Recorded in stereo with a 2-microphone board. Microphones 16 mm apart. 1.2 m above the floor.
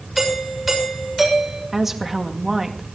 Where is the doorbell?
10° right (ahead or behind), 6.5 m.